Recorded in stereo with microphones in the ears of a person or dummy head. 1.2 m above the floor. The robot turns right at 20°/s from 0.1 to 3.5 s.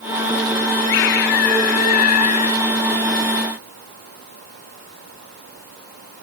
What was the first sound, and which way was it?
A scream, 105° left.